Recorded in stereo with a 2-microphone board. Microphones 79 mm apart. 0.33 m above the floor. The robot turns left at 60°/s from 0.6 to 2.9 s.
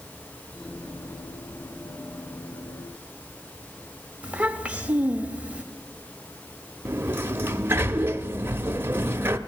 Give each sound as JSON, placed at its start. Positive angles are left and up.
{"t": 4.2, "sound": "a child speaking", "side_deg": -15, "distance_m": 0.9}
{"t": 6.8, "sound": "a sliding door", "side_deg": -30, "distance_m": 0.5}